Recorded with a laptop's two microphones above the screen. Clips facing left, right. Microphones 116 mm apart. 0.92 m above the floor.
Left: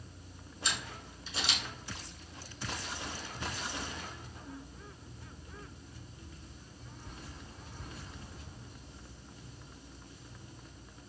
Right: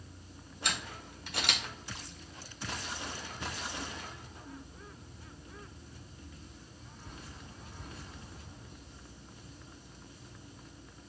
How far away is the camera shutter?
About 0.9 m.